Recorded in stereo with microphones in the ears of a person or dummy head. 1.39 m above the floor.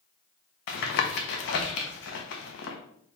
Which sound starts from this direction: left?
Tapping, at 0.7 s.